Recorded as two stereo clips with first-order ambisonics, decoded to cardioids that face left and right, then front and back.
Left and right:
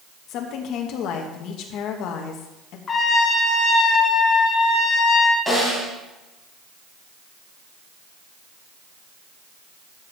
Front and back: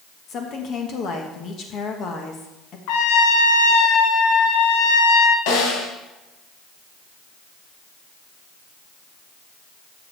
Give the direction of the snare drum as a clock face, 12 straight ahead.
12 o'clock.